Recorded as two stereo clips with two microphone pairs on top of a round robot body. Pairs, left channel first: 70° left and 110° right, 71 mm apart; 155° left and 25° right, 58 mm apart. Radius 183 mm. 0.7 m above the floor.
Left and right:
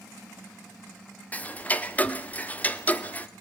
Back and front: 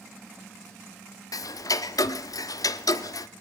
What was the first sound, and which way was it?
Ticking, 140° left.